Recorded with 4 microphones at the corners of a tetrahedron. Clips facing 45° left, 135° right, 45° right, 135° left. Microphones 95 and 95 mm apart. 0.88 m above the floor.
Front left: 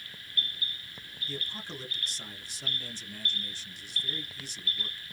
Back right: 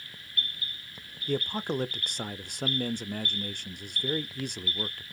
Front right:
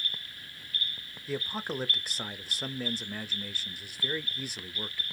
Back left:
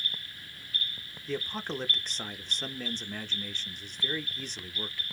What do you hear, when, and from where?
1.3 s a man speaking: 125° right, 0.5 m